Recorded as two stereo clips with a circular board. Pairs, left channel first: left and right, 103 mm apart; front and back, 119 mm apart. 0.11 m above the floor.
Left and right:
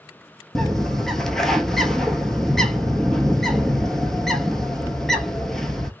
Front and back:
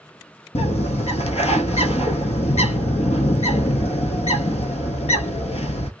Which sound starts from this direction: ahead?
A bird, at 0.6 s.